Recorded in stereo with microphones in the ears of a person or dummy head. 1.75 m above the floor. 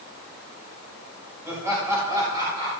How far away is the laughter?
About 3.5 m.